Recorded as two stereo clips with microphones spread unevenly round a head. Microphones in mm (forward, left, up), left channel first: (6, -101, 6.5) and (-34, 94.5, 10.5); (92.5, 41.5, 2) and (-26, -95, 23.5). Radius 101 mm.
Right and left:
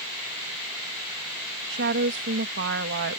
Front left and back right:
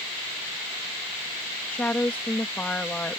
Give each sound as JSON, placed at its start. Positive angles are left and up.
{"t": 1.7, "sound": "a woman speaking", "azimuth_deg": 135}